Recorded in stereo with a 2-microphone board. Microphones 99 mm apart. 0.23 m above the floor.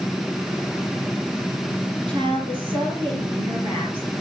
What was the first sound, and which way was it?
A woman speaking, 60° right (ahead or behind).